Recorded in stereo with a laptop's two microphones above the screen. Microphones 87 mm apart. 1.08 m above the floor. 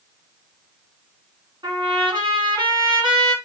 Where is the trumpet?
55° right (ahead or behind), 2 m.